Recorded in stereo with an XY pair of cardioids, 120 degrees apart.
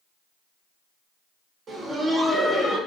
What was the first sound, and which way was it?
Laughter, 50° right.